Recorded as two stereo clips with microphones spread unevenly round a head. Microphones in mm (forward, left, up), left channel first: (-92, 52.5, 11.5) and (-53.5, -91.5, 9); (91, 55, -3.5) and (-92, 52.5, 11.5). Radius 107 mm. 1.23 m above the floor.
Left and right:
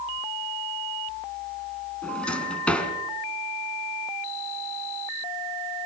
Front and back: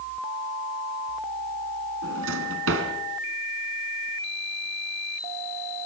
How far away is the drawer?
About 4.5 m.